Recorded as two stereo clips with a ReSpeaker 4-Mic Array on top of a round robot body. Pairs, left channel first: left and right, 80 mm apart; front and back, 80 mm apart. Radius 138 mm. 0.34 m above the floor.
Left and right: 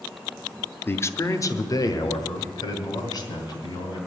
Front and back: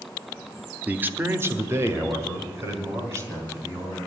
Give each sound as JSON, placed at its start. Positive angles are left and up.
{"t": 0.9, "sound": "a man speaking", "azimuth_deg": 130, "distance_m": 0.9}